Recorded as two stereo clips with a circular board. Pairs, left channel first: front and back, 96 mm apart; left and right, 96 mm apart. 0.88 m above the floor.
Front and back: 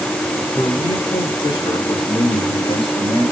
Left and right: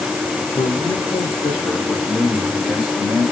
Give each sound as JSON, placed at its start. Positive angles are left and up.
{"t": 0.6, "sound": "a man speaking", "azimuth_deg": 45, "distance_m": 2.0}